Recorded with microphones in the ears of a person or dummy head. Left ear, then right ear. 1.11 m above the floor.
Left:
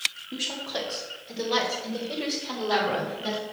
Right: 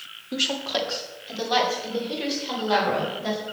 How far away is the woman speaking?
About 1.7 m.